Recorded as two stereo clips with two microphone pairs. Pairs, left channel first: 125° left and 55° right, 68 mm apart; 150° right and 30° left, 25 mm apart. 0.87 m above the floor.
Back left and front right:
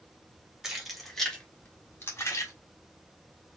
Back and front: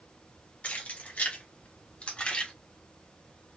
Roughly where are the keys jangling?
Behind right.